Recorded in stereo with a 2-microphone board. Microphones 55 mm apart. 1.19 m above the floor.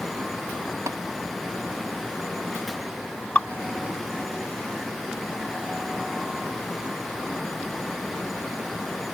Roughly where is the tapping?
Right.